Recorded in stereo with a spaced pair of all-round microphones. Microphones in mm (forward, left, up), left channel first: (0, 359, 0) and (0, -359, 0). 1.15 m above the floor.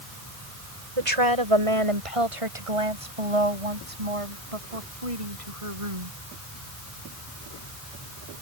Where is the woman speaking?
45° right (ahead or behind); by 6.2 s 50° right (ahead or behind).